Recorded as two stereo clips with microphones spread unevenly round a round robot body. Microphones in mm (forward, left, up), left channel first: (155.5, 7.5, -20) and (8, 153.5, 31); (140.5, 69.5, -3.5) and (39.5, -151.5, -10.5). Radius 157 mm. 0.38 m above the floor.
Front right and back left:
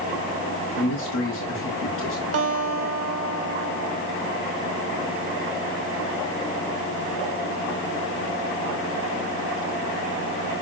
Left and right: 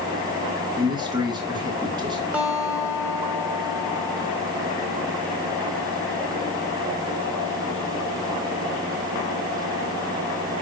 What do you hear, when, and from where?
0.8 s a man speaking: 40° right, 3 m
2.3 s a guitar: 160° left, 1.4 m